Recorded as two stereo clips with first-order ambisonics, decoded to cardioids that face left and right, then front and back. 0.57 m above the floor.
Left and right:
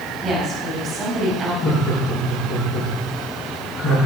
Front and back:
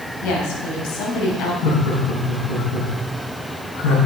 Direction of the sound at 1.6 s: 20° left.